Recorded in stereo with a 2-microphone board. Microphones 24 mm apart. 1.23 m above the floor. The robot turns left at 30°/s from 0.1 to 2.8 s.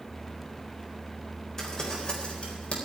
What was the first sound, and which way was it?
Crumpling, 25° left (ahead or behind).